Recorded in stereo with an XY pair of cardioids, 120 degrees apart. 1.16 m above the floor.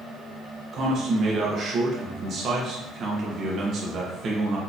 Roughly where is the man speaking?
Ahead right.